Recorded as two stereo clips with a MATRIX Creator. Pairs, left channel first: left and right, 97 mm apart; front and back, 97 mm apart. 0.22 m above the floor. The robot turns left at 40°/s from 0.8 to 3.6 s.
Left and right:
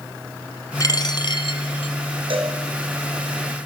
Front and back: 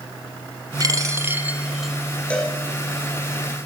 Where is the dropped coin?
135° left, 0.9 m; by 1.9 s 90° left, 0.9 m.